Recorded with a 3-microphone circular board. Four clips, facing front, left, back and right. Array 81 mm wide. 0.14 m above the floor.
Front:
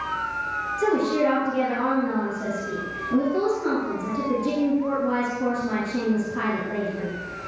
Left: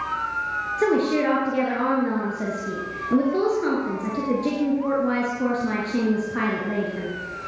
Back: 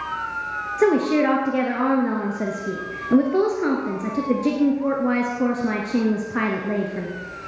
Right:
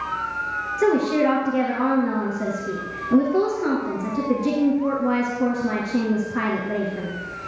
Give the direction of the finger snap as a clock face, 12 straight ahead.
I don't hear a finger snap.